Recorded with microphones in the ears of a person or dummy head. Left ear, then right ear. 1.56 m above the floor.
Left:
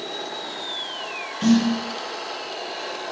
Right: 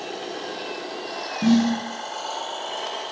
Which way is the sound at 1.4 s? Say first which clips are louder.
Even; 50° left (ahead or behind).